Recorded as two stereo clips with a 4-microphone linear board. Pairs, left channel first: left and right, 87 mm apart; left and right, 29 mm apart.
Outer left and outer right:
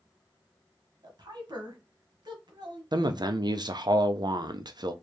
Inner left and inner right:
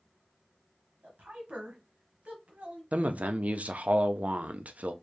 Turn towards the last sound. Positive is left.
turn(degrees=-55)  # may be behind; listen again after turning